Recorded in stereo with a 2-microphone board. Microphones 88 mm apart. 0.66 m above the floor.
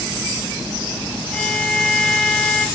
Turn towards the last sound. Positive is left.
turn(degrees=10)  # may be behind; listen again after turning